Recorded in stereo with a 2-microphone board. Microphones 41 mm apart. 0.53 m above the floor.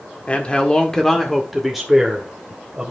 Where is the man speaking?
30° left (ahead or behind), 1.3 m; by 2.9 s 20° right (ahead or behind), 2 m.